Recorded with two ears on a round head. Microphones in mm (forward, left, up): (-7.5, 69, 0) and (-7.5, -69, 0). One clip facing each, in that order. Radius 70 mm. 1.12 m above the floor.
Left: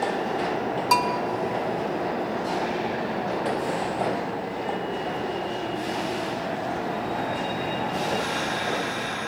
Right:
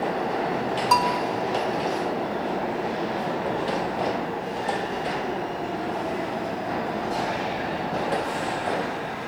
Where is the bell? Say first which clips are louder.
Right 2 dB; 15° left (ahead or behind), 0.6 m.